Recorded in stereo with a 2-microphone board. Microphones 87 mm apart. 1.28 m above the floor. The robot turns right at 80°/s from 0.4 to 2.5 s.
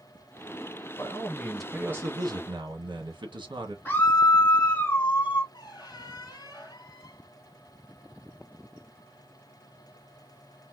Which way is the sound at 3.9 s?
20° left (ahead or behind).